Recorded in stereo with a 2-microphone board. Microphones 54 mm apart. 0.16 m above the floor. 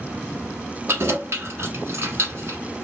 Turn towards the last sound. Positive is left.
turn(degrees=-50)  # may be behind; listen again after turning